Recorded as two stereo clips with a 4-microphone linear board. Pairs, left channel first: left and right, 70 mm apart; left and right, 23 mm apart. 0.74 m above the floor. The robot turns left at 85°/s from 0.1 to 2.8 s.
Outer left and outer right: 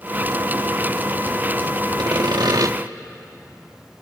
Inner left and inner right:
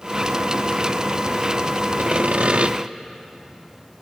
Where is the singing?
I don't hear singing.